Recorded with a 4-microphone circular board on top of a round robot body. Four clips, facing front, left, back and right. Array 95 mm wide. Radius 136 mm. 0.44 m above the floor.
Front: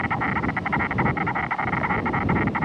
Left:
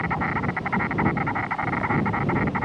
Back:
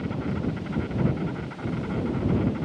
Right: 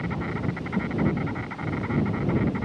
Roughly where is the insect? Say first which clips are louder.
Left 5 dB, front 5 dB; ahead left.